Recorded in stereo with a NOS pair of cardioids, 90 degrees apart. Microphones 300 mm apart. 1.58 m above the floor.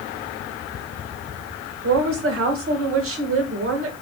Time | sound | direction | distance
1.8 | a woman speaking | 45° right | 2.0 m